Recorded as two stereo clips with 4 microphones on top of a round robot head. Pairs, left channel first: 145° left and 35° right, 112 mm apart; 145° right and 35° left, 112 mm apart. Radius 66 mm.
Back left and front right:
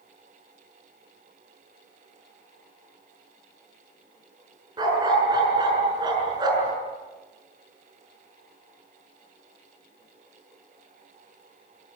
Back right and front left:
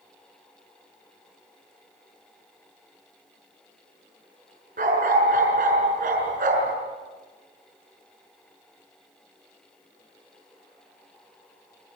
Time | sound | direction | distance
4.8 | a dog barking | 20° left | 6.5 m